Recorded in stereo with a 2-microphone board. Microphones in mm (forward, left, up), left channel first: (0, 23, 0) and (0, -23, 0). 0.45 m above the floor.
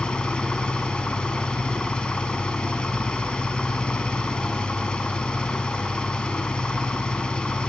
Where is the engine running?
20° left (ahead or behind), 1.0 m.